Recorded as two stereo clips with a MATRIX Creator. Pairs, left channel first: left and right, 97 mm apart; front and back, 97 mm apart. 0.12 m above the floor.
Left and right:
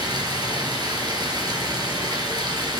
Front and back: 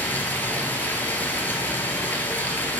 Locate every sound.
0.0 s running water: 65° right, 1.5 m